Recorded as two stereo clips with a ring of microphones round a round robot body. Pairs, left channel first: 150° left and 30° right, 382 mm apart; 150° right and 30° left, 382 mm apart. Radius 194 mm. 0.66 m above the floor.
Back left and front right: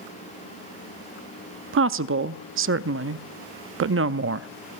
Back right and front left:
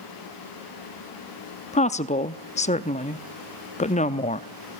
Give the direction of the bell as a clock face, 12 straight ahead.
I don't hear a bell.